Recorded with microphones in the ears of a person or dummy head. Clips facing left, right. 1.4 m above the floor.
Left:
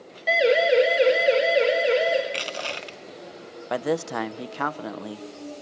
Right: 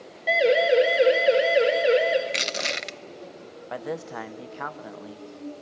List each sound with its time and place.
0.3 s a siren: 5° left (ahead or behind), 3.5 m; by 2.2 s 20° right (ahead or behind), 4.5 m
2.3 s crushing: 30° right (ahead or behind), 0.6 m
3.7 s a man speaking: 70° left (ahead or behind), 0.7 m